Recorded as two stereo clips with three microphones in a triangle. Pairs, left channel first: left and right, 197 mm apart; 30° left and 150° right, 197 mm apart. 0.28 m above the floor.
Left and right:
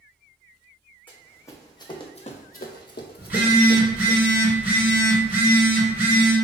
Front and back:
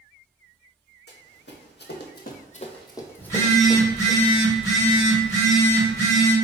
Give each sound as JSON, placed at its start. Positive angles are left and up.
{"t": 1.1, "sound": "running footsteps", "azimuth_deg": 10, "distance_m": 0.9}
{"t": 3.2, "sound": "a phone buzzing", "azimuth_deg": -20, "distance_m": 1.2}